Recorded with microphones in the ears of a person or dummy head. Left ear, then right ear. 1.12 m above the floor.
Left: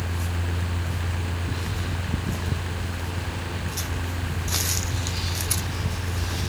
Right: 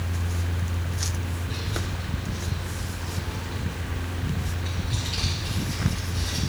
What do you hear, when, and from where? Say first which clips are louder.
1.5 s a child speaking: even; 30° right (ahead or behind), 2.5 m